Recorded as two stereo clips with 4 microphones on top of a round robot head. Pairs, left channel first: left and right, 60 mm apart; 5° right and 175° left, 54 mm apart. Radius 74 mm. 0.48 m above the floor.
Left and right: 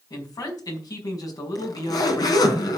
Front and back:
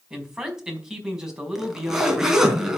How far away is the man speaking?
About 4.5 m.